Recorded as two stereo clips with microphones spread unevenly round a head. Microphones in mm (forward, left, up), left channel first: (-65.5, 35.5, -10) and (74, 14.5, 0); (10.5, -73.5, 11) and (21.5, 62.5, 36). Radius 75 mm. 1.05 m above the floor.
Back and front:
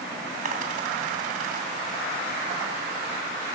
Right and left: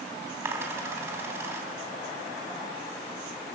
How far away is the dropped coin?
About 3 m.